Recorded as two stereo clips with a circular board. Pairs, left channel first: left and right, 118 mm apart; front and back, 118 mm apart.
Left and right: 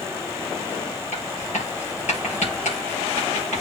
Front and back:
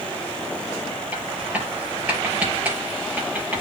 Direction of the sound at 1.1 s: 100° left.